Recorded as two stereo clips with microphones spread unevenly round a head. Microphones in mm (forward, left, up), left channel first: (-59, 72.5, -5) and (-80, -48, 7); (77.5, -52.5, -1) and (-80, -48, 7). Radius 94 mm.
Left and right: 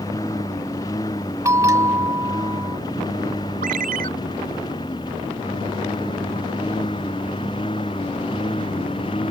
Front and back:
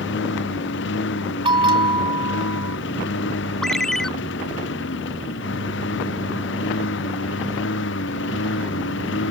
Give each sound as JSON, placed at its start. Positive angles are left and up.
{"t": 0.0, "sound": "a lawn mower", "azimuth_deg": 5}
{"t": 1.4, "sound": "a bell", "azimuth_deg": -140}
{"t": 3.6, "sound": "a ringtone", "azimuth_deg": -90}